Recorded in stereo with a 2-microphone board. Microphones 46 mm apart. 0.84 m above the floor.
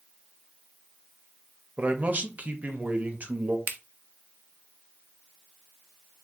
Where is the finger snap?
45° right (ahead or behind), 0.5 m.